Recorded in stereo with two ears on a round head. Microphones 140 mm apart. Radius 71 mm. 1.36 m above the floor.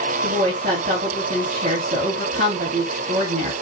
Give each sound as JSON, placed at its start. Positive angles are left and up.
{"t": 0.2, "sound": "a woman speaking", "side_deg": -40, "distance_m": 3.5}